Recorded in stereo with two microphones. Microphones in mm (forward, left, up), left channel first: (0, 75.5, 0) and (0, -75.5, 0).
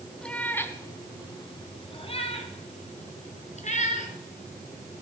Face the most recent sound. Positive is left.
turn(degrees=55)  # may be behind; listen again after turning